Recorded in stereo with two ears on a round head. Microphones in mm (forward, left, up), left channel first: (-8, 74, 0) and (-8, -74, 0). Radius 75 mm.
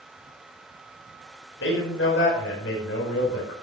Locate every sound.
1.6 s a man speaking: 85° left, 5.5 m